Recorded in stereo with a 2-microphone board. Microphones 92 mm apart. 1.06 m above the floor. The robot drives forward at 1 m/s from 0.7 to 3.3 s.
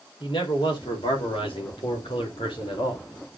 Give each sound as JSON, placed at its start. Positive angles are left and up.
{"t": 0.2, "sound": "a man speaking", "side_deg": 65, "distance_m": 3.0}